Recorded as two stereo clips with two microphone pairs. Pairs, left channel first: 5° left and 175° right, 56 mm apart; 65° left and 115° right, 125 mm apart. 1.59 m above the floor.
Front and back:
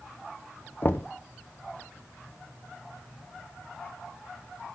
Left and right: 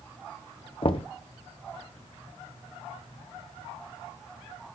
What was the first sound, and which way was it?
Knocking, 40° left.